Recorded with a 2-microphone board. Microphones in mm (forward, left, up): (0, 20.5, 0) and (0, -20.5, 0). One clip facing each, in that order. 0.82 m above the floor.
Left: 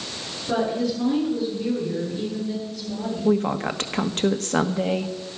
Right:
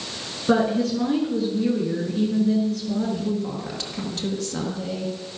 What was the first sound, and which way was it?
A woman speaking, 75° right (ahead or behind).